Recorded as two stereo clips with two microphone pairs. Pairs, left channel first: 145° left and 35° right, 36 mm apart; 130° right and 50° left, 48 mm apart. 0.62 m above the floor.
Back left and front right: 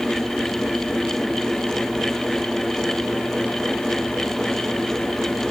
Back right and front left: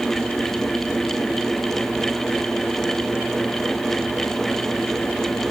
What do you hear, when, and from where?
Only background noise.